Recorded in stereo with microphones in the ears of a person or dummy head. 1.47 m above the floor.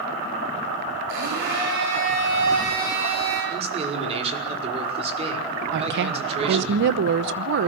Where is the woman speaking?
55° right (ahead or behind), 0.9 m.